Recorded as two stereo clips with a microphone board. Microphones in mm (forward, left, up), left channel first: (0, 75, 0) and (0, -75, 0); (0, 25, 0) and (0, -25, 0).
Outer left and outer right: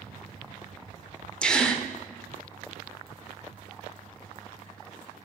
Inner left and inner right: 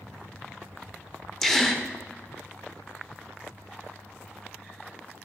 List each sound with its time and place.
1.4 s a gasp: 5° left (ahead or behind), 1.0 m